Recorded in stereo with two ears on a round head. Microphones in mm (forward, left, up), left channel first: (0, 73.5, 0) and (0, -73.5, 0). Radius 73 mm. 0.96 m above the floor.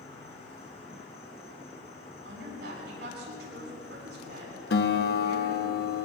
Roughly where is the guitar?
Left.